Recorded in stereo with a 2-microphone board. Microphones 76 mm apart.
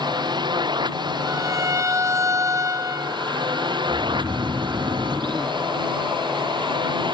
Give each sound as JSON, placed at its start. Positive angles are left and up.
{"t": 0.0, "sound": "a drone", "side_deg": -70}
{"t": 1.3, "sound": "a violin", "side_deg": -40}
{"t": 3.9, "sound": "snoring", "side_deg": -55}